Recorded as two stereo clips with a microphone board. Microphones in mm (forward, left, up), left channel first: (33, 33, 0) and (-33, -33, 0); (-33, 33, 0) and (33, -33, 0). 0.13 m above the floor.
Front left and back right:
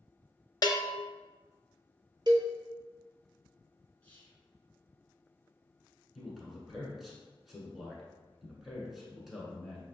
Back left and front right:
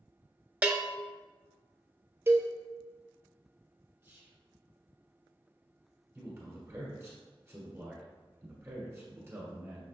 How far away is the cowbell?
About 0.8 m.